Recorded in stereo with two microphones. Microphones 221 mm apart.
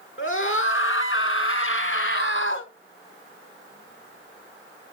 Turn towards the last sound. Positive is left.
turn(degrees=60)  # may be behind; listen again after turning